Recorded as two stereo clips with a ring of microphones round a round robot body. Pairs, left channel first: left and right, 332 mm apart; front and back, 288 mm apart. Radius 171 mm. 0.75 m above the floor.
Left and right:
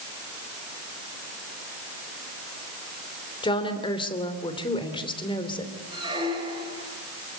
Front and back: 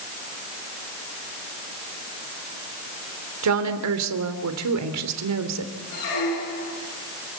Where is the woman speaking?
165° left, 3 m.